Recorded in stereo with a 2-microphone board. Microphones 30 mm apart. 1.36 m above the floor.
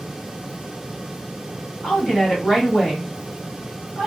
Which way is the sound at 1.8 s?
40° left (ahead or behind).